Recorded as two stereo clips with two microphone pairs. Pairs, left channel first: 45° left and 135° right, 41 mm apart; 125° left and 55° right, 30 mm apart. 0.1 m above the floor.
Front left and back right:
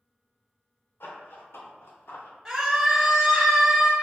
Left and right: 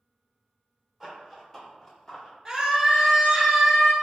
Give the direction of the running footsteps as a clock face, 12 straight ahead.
11 o'clock.